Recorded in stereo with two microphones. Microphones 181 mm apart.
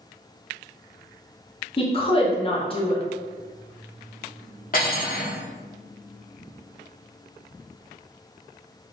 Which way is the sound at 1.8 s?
30° left (ahead or behind).